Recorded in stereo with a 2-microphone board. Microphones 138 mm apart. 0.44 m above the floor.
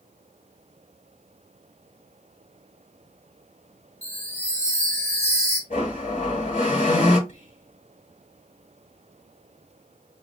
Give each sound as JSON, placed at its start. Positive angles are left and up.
{"t": 4.0, "sound": "a chime", "side_deg": 50, "distance_m": 1.1}
{"t": 5.7, "sound": "a blender", "side_deg": 85, "distance_m": 4.0}
{"t": 7.3, "sound": "whispering", "side_deg": 65, "distance_m": 3.5}